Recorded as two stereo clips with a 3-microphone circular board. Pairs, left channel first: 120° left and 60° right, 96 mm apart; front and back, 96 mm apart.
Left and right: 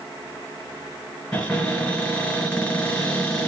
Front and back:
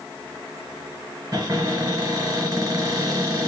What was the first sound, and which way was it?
A cupboard door, 175° right.